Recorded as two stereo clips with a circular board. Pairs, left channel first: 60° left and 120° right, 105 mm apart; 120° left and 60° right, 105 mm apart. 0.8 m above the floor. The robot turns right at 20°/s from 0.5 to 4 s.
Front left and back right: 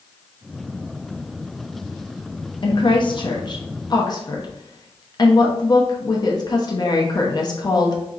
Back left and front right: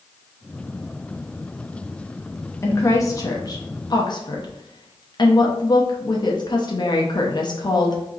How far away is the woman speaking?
About 0.8 m.